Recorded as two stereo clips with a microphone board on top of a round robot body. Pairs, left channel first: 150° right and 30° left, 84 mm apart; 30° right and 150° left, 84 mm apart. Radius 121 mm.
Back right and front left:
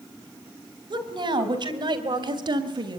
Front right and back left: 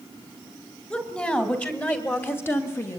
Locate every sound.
0.9 s a woman speaking: 45° left, 3.5 m; by 3.0 s 25° left, 2.5 m